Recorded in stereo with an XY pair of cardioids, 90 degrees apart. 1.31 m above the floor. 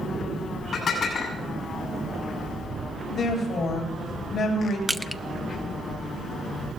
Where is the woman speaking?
65° left, 7.5 m.